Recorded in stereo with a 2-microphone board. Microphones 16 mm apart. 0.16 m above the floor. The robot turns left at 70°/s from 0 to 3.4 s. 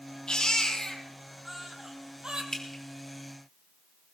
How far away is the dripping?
About 3 m.